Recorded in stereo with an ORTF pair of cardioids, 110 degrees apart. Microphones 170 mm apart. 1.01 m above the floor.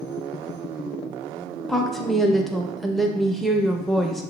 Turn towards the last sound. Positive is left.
turn(degrees=0)